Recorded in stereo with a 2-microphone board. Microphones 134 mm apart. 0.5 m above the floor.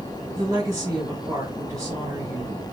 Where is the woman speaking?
25° right (ahead or behind), 2.5 m.